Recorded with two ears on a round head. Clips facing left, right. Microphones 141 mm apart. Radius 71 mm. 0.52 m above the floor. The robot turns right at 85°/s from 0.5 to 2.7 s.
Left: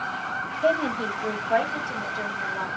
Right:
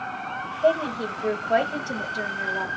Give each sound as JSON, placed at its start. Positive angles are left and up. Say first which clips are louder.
{"t": 0.6, "sound": "a woman speaking", "louder": "right 2 dB", "azimuth_deg": 150, "distance_m": 1.8}